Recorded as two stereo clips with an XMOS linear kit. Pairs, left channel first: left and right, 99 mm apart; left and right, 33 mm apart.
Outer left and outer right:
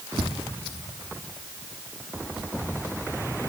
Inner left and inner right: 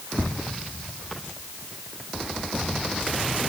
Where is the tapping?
75° right (ahead or behind), 1.7 m.